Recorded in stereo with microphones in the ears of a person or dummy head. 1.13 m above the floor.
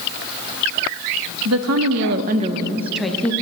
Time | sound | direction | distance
1.4 | a woman speaking | 85° right | 0.9 m